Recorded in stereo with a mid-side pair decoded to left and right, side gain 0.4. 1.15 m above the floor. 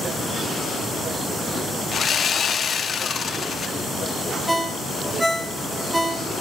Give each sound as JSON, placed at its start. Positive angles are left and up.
{"t": 1.9, "sound": "sawing", "azimuth_deg": 45, "distance_m": 0.9}
{"t": 4.5, "sound": "a ringtone", "azimuth_deg": -5, "distance_m": 1.1}